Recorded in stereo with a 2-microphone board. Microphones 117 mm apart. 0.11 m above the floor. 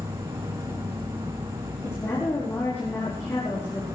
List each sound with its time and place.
0.0 s an insect: 50° right (ahead or behind), 3.5 m
1.8 s a woman speaking: 20° left (ahead or behind), 5.5 m